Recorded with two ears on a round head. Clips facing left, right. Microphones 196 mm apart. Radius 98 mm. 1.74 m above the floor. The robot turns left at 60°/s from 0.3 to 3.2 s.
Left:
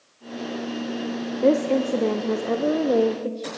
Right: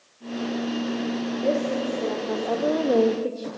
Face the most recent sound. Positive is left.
turn(degrees=-10)